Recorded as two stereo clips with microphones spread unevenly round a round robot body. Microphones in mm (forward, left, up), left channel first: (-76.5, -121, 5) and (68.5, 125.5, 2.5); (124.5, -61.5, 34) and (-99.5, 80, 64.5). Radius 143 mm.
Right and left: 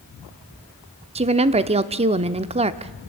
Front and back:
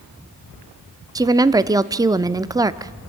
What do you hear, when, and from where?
1.1 s a woman speaking: 75° left, 0.7 m